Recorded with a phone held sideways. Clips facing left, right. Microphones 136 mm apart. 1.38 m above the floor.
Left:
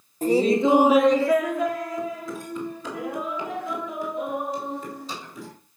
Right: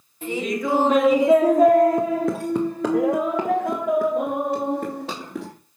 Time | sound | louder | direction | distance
0.2 | laughter | left 6 dB | 40° left (ahead or behind) | 0.8 m